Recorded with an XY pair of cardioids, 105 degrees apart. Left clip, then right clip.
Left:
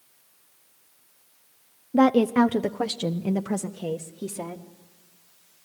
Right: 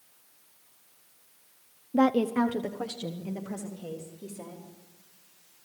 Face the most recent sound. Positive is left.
turn(degrees=75)